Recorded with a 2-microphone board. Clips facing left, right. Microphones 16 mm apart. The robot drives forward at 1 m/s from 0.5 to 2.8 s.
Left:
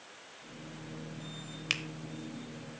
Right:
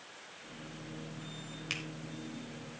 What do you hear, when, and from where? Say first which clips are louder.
1.7 s a finger snap: left 5 dB; 35° left (ahead or behind), 1.0 m; by 1.8 s 30° left (ahead or behind), 1.0 m